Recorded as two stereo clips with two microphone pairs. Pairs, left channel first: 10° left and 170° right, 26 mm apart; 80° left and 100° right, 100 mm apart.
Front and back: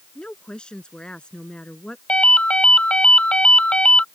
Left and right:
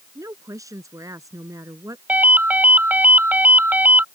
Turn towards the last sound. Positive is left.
turn(degrees=-25)